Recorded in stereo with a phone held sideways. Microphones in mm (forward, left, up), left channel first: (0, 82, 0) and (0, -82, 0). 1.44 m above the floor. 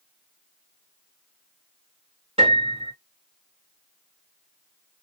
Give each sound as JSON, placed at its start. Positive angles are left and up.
{"t": 2.4, "sound": "a piano", "side_deg": -35, "distance_m": 2.5}